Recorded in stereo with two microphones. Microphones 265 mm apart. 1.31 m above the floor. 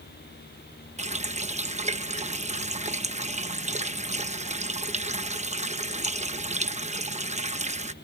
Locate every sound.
1.0 s a running tap: 25° right (ahead or behind)